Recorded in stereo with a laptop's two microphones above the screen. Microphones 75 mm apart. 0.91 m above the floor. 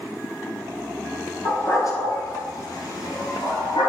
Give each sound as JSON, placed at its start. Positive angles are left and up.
{"t": 1.4, "sound": "a dog barking", "side_deg": 35, "distance_m": 1.4}